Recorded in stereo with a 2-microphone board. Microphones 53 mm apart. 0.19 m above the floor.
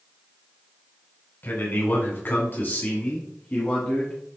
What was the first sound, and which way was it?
A man speaking, 40° left (ahead or behind).